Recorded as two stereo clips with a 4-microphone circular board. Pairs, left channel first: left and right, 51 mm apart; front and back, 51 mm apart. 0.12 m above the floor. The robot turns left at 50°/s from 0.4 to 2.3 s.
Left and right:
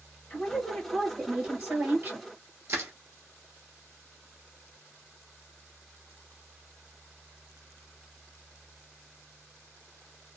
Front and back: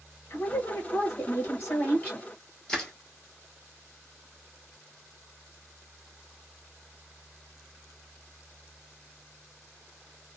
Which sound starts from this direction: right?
Crushing, at 2.7 s.